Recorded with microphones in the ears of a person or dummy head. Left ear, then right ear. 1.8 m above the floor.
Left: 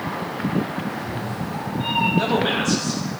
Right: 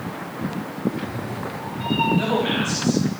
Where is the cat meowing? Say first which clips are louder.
Even; centre (ahead or behind), 3.5 m; by 2.1 s 5° left (ahead or behind), 4 m.